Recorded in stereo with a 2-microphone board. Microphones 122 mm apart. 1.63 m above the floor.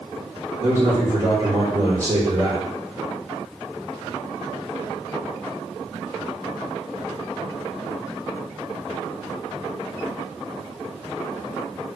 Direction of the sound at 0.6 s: 75° right (ahead or behind).